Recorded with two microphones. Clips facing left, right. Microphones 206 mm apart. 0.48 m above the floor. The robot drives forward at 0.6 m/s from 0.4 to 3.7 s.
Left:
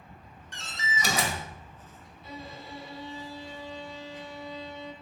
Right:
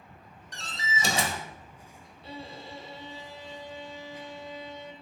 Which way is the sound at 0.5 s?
35° right (ahead or behind).